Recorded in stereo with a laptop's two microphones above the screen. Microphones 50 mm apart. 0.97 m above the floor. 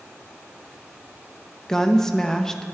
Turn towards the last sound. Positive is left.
turn(degrees=10)  # may be behind; listen again after turning